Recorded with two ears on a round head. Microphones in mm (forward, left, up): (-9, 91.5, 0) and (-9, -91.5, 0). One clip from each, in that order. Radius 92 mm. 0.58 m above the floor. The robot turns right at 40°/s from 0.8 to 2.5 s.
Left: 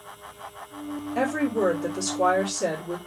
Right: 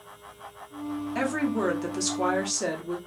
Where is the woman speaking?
85° right, 1.1 m; by 3.0 s 35° right, 1.1 m.